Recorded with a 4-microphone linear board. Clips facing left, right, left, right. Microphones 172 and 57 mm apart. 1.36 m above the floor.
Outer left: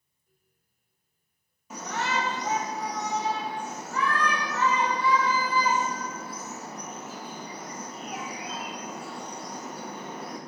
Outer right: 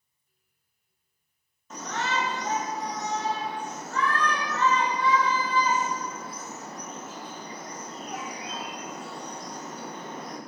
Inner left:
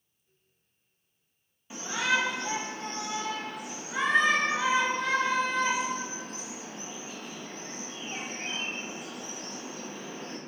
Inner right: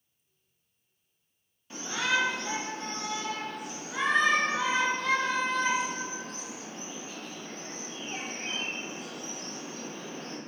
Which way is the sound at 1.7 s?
10° left (ahead or behind).